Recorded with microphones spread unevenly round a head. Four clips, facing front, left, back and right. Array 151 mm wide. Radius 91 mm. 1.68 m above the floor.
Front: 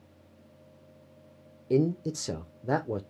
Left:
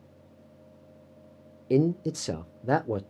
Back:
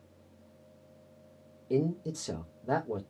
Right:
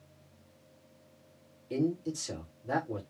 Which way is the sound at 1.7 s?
50° left.